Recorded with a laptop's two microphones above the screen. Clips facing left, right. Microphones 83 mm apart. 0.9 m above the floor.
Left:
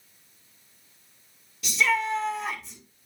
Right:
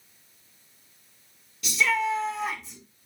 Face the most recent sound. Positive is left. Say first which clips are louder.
# even
turn(degrees=0)  # may be behind; listen again after turning